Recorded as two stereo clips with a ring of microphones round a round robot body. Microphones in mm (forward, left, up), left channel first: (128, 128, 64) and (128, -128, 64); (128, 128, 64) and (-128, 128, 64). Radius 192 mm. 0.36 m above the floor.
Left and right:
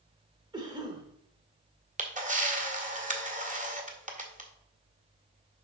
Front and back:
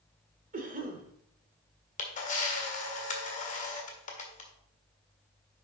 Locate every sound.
0.5 s a cough: 155° right, 1.3 m
2.0 s a camera shutter: 45° right, 1.7 m